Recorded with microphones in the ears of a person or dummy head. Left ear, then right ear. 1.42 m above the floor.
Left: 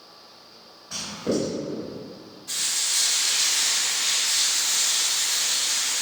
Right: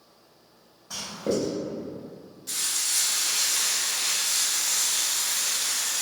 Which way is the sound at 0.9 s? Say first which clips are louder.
Left 1 dB; 70° right (ahead or behind).